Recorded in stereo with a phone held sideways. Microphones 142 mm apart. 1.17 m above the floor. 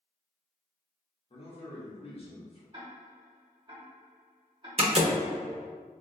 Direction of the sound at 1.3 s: 40° left (ahead or behind).